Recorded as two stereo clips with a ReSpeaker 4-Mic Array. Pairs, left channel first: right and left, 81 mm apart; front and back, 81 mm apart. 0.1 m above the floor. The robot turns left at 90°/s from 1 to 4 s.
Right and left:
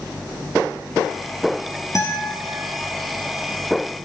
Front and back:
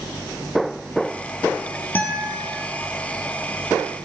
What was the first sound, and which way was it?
A guitar, 60° right.